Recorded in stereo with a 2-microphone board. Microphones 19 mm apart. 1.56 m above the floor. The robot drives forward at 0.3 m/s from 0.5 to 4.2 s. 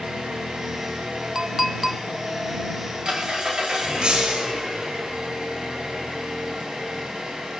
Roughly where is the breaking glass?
Right.